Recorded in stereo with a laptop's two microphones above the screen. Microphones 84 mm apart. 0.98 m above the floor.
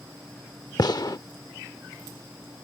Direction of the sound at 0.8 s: 50° left (ahead or behind).